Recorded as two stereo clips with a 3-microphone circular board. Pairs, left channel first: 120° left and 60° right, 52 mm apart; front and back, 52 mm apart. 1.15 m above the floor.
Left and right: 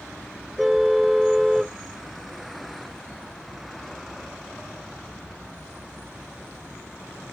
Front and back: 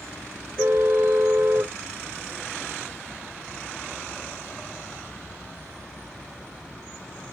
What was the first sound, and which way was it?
A car horn, 145° right.